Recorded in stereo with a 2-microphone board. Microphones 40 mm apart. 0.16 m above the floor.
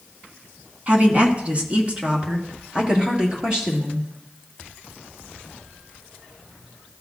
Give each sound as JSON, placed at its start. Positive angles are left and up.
{"t": 0.9, "sound": "a woman speaking", "side_deg": -35, "distance_m": 1.3}